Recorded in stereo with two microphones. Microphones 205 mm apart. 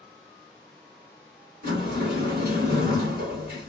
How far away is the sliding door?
About 1.9 m.